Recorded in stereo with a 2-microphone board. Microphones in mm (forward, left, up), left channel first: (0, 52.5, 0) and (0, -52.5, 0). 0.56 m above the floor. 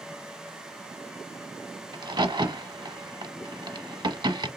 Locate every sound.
1.9 s a crack: 45° right (ahead or behind), 0.8 m